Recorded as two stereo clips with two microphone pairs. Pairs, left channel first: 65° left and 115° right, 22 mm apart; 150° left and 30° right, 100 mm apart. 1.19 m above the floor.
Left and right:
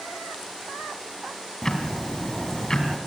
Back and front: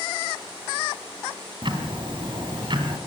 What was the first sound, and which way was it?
Ticking, 5° left.